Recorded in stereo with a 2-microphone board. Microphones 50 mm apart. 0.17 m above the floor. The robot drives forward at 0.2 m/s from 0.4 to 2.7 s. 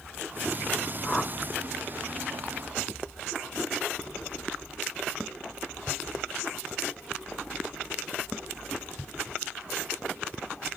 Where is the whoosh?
Centre (ahead or behind), 0.5 m.